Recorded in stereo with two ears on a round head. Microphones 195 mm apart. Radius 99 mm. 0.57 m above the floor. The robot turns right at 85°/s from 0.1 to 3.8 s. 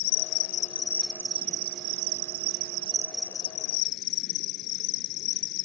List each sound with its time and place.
0.0 s an insect: 100° left; by 5.7 s 55° left